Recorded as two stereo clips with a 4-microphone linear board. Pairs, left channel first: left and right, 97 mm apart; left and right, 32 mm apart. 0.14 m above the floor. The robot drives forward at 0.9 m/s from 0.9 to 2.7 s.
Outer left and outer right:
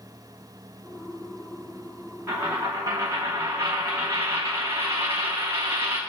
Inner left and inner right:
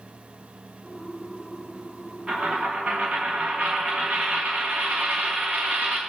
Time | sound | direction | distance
2.3 | a dropped coin | 25° right (ahead or behind) | 1.6 m